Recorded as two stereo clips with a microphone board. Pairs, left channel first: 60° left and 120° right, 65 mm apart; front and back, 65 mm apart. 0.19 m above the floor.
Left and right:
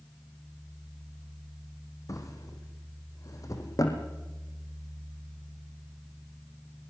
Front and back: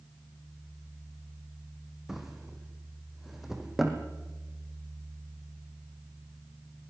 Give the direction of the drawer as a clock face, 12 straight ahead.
9 o'clock.